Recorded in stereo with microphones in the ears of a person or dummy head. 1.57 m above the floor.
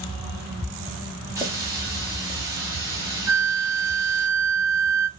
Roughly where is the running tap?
Centre.